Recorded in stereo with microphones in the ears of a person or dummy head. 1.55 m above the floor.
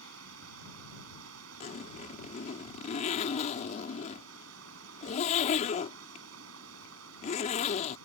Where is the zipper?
35° left (ahead or behind).